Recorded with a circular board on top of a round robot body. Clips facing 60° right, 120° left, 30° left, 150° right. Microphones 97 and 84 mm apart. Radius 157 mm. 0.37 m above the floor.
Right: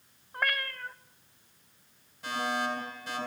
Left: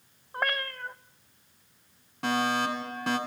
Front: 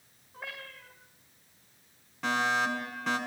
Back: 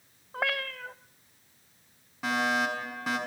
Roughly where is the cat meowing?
Behind.